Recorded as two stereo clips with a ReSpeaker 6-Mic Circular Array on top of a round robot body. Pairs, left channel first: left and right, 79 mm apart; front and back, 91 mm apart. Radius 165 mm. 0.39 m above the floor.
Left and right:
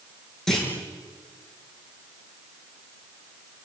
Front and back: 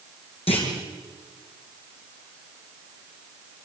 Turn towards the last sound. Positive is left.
turn(degrees=5)